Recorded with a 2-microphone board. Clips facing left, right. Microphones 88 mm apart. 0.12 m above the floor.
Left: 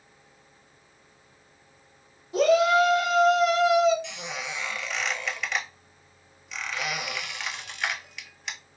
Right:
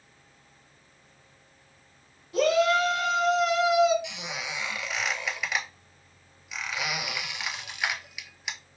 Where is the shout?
20° left (ahead or behind), 1.7 m; by 3.9 s 10° right (ahead or behind), 1.7 m.